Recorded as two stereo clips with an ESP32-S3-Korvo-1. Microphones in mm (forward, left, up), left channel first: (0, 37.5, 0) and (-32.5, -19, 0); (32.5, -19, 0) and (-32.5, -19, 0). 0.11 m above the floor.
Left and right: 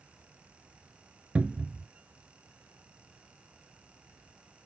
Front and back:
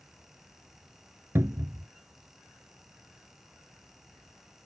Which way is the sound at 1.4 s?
Straight behind.